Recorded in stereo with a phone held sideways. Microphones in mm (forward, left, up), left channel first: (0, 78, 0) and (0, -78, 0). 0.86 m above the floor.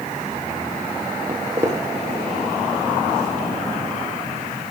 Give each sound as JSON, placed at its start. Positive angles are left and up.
{"t": 1.3, "sound": "footsteps", "side_deg": -15, "distance_m": 1.9}